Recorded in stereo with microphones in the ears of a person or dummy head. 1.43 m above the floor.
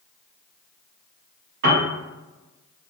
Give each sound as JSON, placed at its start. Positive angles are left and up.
{"t": 1.6, "sound": "a piano", "side_deg": -50, "distance_m": 0.8}